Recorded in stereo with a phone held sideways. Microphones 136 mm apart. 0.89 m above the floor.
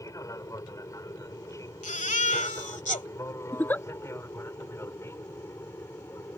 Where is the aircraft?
25° left (ahead or behind); by 6.4 s 20° left (ahead or behind).